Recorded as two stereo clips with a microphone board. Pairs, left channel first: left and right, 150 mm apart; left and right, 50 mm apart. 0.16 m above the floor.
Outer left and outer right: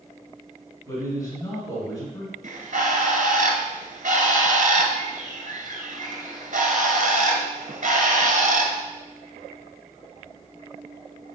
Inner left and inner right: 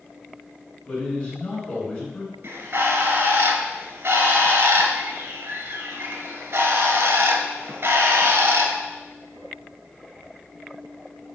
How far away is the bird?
About 0.7 m.